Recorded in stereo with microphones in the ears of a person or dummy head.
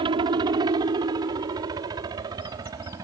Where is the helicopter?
30° right (ahead or behind); by 3.0 s 20° right (ahead or behind).